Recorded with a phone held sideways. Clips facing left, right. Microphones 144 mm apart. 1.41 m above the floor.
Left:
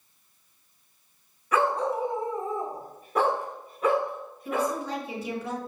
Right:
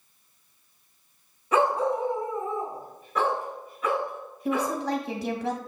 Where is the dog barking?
25° right (ahead or behind), 0.9 m; by 4.8 s 60° left (ahead or behind), 3.5 m.